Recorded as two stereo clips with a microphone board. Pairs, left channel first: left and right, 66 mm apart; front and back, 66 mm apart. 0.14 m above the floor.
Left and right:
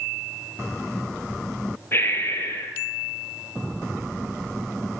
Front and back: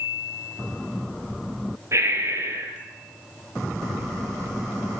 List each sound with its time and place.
1.9 s breathing: 140° left, 1.5 m